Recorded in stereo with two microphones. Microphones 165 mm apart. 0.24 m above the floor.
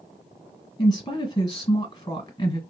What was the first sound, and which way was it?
A woman speaking, 25° left (ahead or behind).